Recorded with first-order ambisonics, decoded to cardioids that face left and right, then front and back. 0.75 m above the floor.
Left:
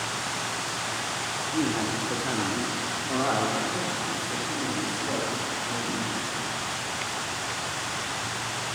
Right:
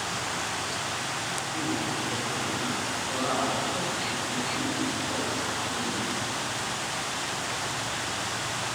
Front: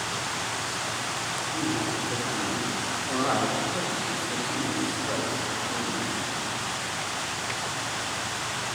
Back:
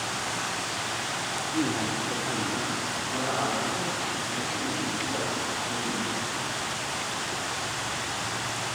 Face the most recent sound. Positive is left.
turn(degrees=45)